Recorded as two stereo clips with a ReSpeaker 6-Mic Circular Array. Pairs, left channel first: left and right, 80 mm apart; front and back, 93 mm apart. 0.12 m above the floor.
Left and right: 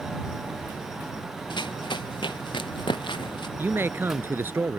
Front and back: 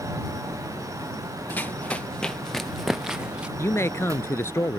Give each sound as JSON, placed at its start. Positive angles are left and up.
{"t": 1.5, "sound": "running footsteps", "azimuth_deg": 70}
{"t": 3.6, "sound": "a man speaking", "azimuth_deg": -45}